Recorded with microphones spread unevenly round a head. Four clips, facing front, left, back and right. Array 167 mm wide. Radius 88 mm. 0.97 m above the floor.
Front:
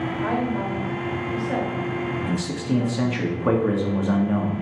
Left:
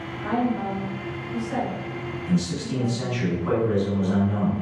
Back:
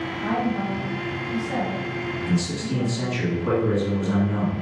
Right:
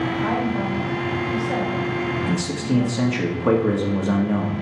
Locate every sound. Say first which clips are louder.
0.2 s a woman speaking: right 2 dB, back 1 dB; 30° right, 3.5 m
2.3 s a man speaking: right 3 dB, front 1 dB; 60° right, 2.0 m